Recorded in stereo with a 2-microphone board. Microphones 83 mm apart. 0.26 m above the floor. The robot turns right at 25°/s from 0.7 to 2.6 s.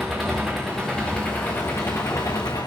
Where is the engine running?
Straight ahead, 7.5 m; by 2.7 s 50° left, 7.5 m.